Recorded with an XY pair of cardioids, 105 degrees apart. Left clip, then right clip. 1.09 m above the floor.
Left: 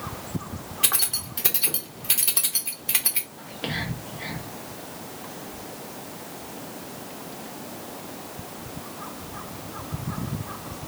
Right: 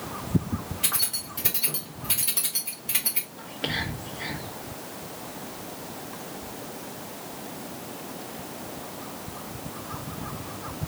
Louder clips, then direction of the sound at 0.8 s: Left 4 dB; 35° left.